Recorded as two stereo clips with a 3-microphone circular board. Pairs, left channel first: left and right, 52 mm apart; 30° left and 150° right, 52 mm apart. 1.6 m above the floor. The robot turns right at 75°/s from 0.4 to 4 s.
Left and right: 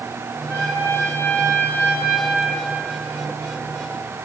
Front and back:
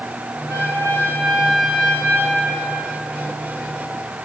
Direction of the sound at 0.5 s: 145° right.